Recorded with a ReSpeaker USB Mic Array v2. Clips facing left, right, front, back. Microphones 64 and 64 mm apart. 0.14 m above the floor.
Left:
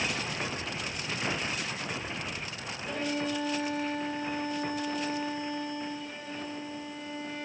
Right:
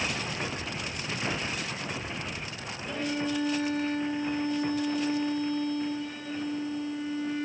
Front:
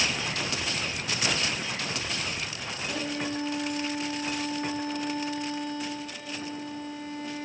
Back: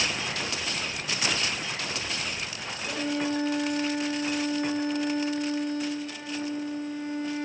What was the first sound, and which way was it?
A violin, 175° left.